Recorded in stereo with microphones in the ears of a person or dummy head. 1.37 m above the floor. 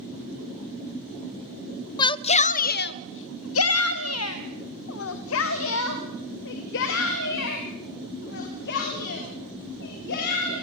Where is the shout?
25° left (ahead or behind), 1.0 m; by 10.5 s 55° left (ahead or behind), 5.5 m.